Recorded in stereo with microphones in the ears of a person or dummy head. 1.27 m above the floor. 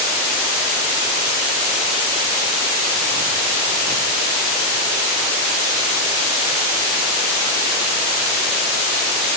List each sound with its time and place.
Only background noise.